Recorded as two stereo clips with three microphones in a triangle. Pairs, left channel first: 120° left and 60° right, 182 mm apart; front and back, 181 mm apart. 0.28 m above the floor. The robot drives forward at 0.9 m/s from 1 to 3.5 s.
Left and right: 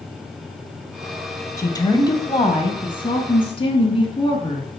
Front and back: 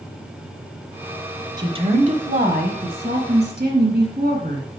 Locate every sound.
1.6 s a woman speaking: 160° left, 1.0 m; by 4.7 s 175° left, 2.5 m